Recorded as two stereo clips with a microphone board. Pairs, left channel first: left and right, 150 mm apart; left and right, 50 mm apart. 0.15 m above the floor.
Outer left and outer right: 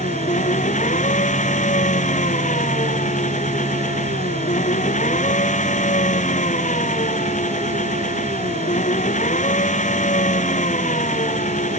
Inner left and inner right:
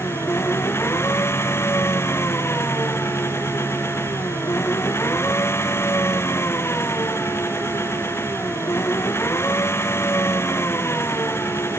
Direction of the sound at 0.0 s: 55° left (ahead or behind).